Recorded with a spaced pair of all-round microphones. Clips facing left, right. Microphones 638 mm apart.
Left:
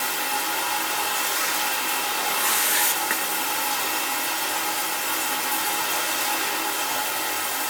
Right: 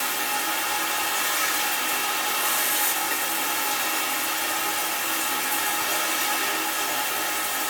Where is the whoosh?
70° left (ahead or behind), 2.0 m.